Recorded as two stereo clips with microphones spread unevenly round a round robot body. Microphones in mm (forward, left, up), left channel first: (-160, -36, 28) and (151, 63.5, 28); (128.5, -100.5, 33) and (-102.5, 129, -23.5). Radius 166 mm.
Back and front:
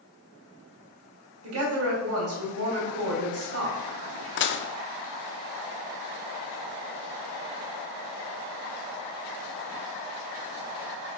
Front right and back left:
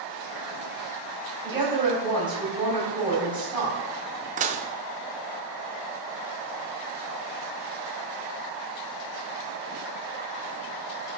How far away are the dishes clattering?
About 0.5 m.